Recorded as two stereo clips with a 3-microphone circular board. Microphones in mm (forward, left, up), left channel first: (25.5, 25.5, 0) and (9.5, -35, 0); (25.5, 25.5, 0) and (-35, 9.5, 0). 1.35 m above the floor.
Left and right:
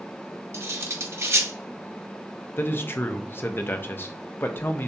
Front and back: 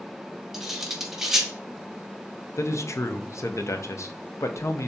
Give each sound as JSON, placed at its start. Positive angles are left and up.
{"t": 0.5, "sound": "cutlery clinking", "azimuth_deg": -85, "distance_m": 0.9}
{"t": 2.6, "sound": "a man speaking", "azimuth_deg": 30, "distance_m": 0.7}